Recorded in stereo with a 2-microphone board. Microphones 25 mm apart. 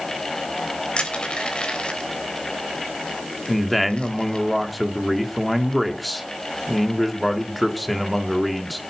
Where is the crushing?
45° left (ahead or behind), 3 m.